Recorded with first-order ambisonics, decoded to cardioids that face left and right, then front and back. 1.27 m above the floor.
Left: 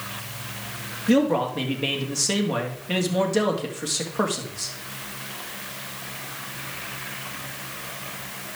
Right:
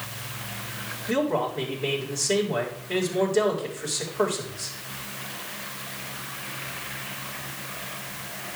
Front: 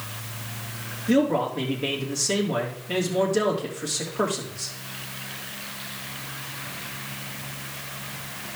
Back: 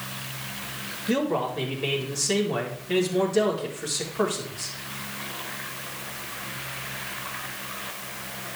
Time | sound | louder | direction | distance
1.1 | a man speaking | left 4 dB, front 3 dB | 90° left | 2.5 m